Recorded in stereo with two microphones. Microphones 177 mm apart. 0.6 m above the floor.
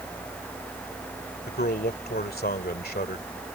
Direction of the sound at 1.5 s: 65° left (ahead or behind).